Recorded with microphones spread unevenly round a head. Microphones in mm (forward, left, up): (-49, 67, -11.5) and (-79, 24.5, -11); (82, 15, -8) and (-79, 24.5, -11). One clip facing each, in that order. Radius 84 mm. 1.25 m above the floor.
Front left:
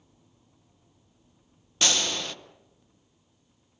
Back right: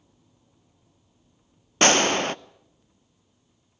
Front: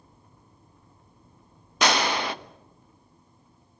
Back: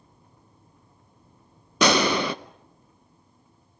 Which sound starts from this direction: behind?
A gunshot, at 1.8 s.